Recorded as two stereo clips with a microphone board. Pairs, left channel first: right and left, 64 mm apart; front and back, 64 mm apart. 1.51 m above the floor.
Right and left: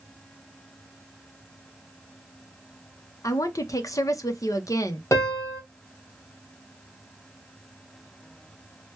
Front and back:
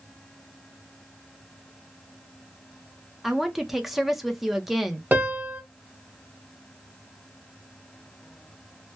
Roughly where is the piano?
Behind right.